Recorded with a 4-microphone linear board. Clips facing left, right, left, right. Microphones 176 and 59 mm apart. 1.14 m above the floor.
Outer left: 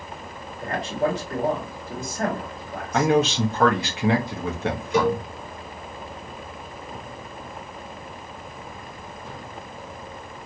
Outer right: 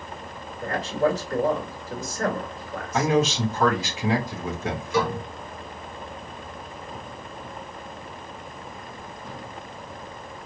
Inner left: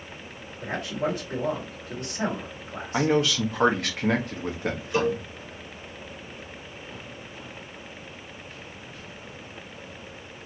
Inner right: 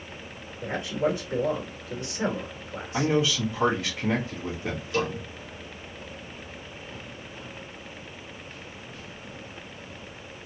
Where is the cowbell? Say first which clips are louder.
Outer left 4 dB, inner left 4 dB; 20° left (ahead or behind), 1.2 m.